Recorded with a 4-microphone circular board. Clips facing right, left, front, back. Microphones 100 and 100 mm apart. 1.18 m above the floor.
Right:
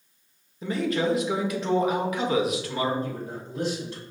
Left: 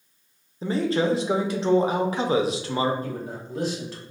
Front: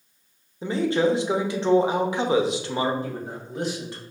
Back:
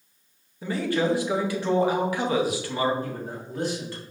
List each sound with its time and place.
0.6 s a man speaking: 55° left, 0.7 m
3.0 s a man speaking: 75° left, 1.9 m